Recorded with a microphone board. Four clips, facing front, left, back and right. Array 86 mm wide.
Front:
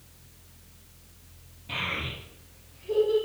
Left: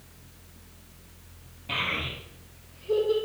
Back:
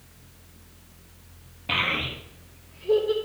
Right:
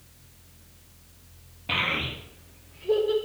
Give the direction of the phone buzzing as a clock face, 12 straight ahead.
No phone buzzing in this recording.